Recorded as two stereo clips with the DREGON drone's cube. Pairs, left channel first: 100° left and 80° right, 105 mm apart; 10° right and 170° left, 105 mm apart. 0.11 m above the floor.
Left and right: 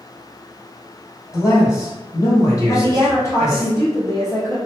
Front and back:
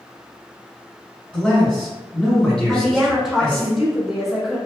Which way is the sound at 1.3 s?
65° left.